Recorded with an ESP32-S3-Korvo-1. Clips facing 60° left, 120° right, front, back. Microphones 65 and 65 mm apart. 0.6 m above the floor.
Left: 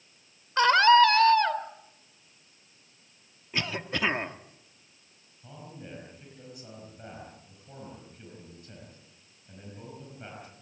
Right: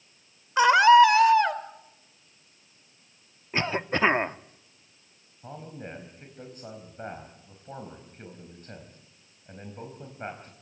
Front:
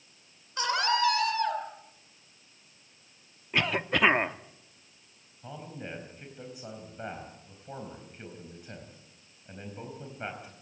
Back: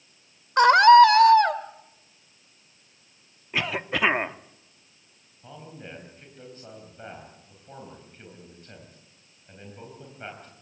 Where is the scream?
160° left, 2 m.